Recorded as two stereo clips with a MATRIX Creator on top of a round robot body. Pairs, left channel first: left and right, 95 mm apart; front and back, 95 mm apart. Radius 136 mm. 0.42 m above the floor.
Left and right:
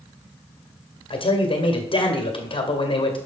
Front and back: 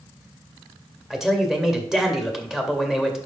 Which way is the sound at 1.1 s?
95° left.